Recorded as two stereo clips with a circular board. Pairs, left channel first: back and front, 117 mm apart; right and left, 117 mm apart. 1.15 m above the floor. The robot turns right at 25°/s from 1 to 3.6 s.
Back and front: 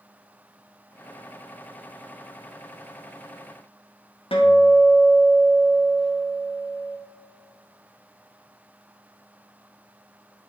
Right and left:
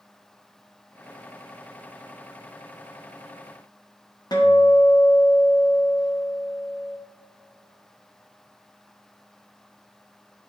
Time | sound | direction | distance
4.3 | a guitar | 145° right | 1.0 m